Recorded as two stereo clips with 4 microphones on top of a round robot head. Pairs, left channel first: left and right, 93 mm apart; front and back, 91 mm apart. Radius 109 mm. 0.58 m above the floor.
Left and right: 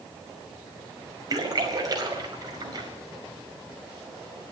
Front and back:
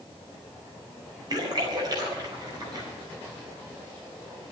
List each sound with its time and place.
1.3 s a splash: 135° right, 4.5 m